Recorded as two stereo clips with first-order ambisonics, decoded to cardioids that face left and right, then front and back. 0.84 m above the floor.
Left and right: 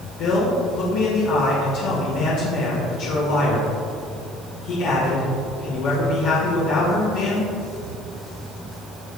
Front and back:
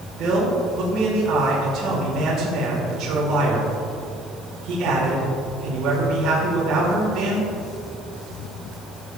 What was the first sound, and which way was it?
A man speaking, 130° left.